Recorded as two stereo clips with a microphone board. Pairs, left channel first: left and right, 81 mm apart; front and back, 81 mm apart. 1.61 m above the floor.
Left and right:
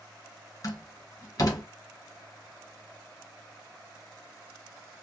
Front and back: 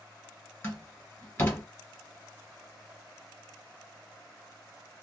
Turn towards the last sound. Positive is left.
turn(degrees=55)